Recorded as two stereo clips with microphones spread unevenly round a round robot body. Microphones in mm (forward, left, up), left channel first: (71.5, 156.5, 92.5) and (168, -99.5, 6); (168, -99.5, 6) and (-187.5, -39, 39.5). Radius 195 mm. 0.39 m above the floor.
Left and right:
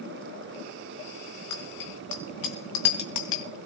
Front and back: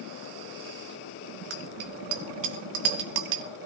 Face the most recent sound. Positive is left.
turn(degrees=130)